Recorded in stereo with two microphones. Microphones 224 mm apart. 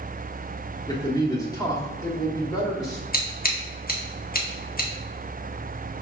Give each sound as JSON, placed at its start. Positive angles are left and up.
{"t": 0.9, "sound": "a man speaking", "side_deg": 15, "distance_m": 0.8}
{"t": 3.1, "sound": "scissors", "side_deg": 40, "distance_m": 0.8}